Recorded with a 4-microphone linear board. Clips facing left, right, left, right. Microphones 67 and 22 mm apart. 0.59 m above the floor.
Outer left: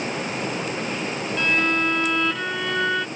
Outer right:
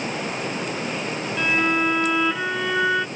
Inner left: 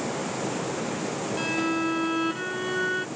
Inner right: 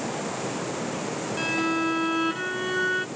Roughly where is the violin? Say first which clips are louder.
Outer right 1 dB, inner right 2 dB; centre.